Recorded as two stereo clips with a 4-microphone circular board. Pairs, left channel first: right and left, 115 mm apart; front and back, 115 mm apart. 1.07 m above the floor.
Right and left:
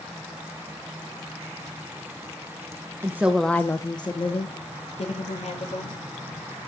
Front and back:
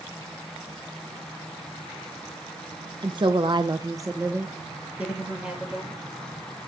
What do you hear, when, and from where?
3.0 s a woman speaking: 145° left, 0.9 m; by 6.0 s 95° right, 2.5 m